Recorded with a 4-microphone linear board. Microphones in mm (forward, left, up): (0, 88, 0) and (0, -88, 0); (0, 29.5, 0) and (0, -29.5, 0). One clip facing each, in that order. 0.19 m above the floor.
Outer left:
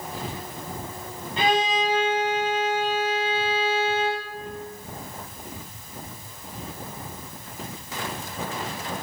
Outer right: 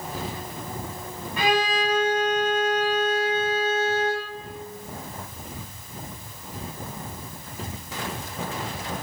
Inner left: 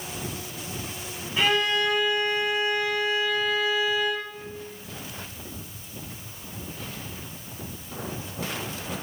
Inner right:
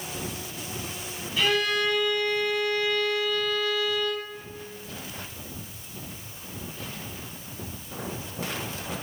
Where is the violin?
25° left (ahead or behind), 1.1 m.